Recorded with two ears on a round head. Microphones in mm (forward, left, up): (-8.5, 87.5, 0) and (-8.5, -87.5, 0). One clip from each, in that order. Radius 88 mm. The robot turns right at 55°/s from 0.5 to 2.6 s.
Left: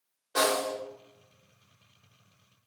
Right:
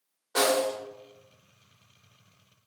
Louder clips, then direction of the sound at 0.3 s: Right 2 dB; 15° right (ahead or behind).